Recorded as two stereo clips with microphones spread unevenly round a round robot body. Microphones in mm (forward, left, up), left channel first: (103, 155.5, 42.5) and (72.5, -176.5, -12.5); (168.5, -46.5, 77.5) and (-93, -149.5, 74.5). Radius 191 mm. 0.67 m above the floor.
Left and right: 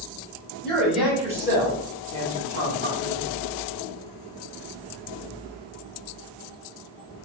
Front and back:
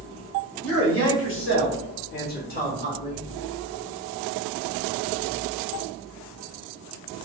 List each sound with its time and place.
0.6 s a man speaking: 5° right, 2 m; by 3.2 s 45° right, 2.5 m